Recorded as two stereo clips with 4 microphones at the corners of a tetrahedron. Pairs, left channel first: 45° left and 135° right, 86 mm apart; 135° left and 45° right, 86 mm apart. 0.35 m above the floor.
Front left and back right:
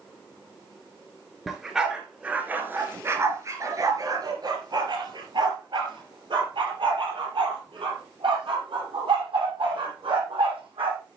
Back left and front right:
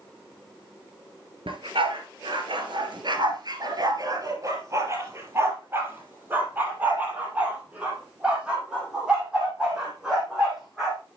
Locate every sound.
1.5 s a dog barking: 45° right, 2 m; by 11.0 s 130° right, 6 m